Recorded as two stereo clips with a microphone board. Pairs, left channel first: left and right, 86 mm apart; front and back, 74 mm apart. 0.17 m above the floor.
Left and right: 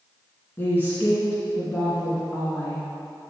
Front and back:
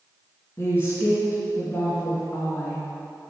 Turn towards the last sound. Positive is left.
turn(degrees=40)